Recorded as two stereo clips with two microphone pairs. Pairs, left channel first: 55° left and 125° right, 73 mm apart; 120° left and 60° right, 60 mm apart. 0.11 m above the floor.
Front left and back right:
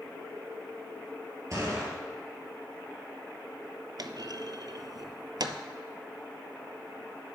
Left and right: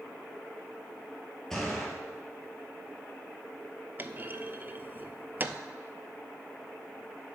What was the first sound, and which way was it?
A gunshot, 160° right.